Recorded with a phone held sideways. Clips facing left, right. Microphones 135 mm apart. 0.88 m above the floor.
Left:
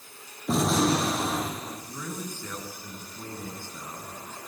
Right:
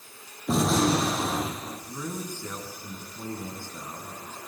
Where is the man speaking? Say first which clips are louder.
Right 4 dB; 15° right (ahead or behind), 8.5 m.